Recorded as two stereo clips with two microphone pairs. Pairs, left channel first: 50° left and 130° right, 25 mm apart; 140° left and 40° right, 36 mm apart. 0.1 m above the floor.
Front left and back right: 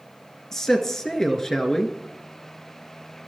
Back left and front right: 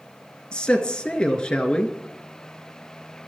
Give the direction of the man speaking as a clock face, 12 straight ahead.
9 o'clock.